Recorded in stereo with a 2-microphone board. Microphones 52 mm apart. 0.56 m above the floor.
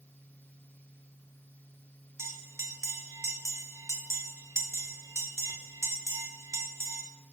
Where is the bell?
65° right (ahead or behind), 0.5 m.